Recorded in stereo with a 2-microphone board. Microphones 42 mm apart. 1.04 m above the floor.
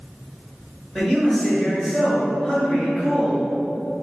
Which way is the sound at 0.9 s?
5° left (ahead or behind).